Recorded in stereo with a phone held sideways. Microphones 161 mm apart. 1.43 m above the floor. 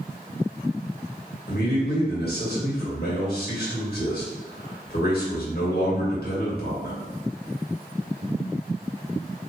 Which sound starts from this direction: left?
A man speaking, at 1.5 s.